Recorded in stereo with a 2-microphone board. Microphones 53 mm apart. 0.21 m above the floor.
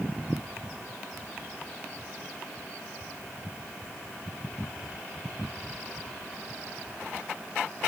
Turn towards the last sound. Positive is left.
No sound to turn to.